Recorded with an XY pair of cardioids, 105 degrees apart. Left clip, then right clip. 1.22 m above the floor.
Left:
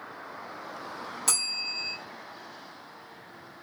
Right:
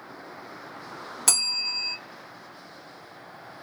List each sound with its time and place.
1.3 s a bell: 45° right, 1.2 m